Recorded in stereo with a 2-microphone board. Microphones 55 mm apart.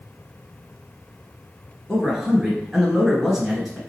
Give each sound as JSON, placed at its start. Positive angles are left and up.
{"t": 1.9, "sound": "a man speaking", "side_deg": -5, "distance_m": 1.6}